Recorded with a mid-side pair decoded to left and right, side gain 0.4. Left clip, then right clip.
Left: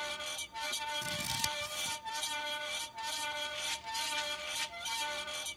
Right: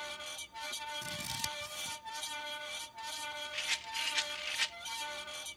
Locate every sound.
0.0 s a fan: 25° left
1.0 s scissors: 20° left
3.5 s a rattle: 60° right